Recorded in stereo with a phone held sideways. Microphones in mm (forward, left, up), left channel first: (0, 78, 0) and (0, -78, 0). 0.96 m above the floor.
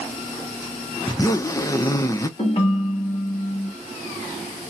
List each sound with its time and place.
1.1 s a zipper: 25° left (ahead or behind), 0.5 m
2.4 s a ringtone: 45° left (ahead or behind), 1.0 m